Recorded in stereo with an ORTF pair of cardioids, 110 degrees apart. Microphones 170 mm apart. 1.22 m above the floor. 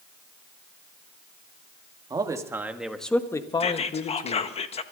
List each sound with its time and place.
2.1 s a man speaking: 25° right, 1.9 m; by 4.5 s 60° left, 1.6 m
3.6 s whispering: 35° left, 1.4 m